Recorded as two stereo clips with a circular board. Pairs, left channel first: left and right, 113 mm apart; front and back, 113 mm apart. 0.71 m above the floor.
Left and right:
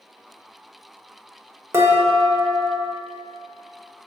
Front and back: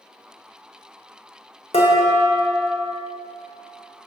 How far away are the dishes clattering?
About 1.1 m.